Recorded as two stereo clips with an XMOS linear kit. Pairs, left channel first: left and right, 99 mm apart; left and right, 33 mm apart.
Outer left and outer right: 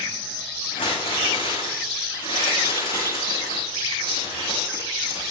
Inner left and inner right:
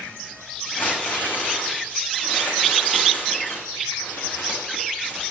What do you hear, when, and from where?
0.7 s crumpling: 80° left, 7 m